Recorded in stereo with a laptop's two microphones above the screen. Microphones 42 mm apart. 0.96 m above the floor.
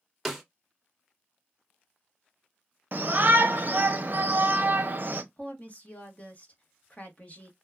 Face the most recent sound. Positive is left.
turn(degrees=35)  # may be behind; listen again after turning